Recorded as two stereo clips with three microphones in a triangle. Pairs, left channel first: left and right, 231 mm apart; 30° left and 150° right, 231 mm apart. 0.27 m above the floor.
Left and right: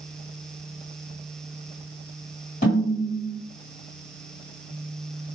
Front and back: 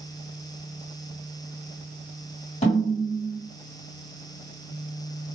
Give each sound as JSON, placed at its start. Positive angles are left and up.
{"t": 2.6, "sound": "a snare drum", "azimuth_deg": 75, "distance_m": 2.0}